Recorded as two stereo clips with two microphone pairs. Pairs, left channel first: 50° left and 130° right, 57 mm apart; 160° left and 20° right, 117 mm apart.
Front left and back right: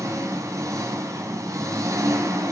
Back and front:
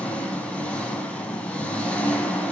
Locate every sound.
0.0 s an engine running: 120° right, 3 m